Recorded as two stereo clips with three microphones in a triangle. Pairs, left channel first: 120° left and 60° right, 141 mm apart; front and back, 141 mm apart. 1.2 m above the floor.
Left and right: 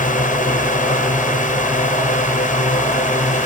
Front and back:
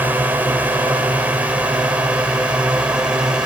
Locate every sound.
0.0 s a drone: 100° left; by 3.5 s 95° left